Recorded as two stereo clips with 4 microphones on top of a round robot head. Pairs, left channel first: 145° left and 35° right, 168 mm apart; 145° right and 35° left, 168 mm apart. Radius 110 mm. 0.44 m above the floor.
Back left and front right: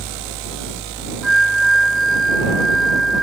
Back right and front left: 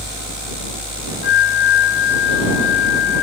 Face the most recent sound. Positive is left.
turn(degrees=-125)